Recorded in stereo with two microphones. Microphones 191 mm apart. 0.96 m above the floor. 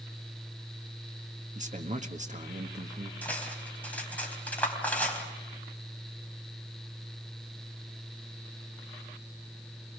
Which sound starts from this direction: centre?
Cutlery clinking, at 3.2 s.